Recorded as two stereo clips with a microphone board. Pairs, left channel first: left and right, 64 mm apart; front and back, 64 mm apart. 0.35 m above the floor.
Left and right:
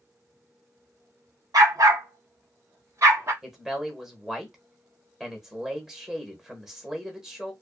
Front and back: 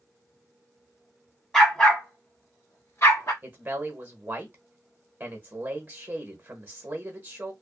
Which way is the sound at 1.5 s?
80° right.